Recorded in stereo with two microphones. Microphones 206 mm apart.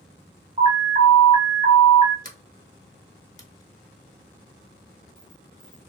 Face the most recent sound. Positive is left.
turn(degrees=-40)  # may be behind; listen again after turning